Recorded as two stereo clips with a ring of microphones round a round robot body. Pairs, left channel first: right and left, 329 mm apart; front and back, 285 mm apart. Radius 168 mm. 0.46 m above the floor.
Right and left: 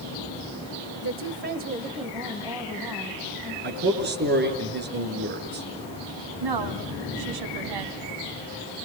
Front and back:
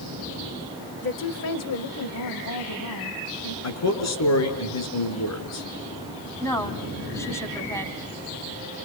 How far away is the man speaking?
About 6 m.